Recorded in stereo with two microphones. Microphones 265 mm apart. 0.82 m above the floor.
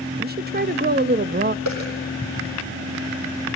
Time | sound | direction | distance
0.2 | a woman speaking | 35° right (ahead or behind) | 0.8 m
1.6 | a dropped coin | 85° right | 10 m